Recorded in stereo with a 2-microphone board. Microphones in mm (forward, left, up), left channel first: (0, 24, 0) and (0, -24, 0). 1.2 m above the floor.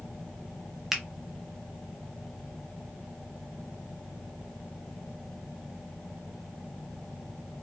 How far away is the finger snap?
About 0.6 m.